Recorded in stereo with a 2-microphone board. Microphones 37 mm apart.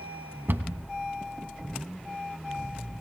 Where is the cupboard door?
75° right (ahead or behind), 1.0 m.